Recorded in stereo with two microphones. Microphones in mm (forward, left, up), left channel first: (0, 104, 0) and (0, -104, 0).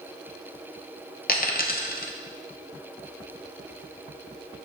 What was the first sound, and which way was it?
A dropped coin, 40° left (ahead or behind).